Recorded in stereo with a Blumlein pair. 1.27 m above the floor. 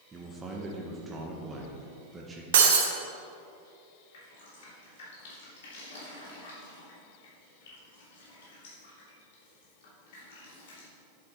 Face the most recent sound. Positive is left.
turn(degrees=55)